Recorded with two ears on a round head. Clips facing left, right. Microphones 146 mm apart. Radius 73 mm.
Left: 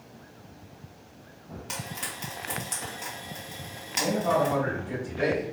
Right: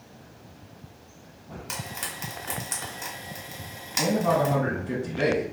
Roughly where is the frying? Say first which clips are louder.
Right 1 dB; centre.